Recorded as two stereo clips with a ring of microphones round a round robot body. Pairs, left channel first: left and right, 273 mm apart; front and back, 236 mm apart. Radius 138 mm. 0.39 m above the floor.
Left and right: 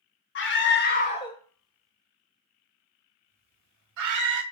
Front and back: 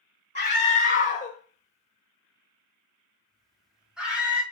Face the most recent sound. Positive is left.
turn(degrees=-95)